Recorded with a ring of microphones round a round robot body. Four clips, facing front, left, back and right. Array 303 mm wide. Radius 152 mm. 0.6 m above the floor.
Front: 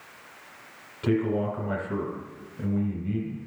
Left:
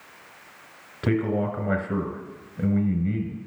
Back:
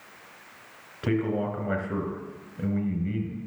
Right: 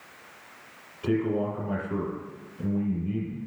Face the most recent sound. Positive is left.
turn(degrees=105)